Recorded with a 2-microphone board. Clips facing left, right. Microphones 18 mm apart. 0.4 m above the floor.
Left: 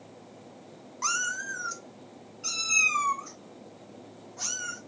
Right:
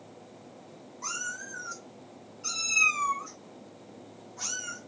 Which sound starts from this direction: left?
A cat meowing, at 1.0 s.